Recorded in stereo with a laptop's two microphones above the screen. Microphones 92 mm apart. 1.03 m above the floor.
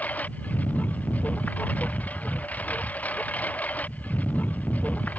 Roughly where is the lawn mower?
Centre.